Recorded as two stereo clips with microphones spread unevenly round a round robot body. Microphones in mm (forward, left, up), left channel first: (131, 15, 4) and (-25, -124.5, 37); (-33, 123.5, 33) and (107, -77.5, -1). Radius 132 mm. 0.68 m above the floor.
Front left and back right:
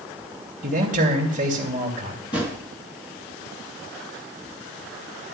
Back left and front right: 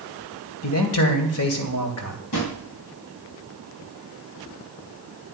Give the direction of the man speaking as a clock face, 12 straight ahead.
7 o'clock.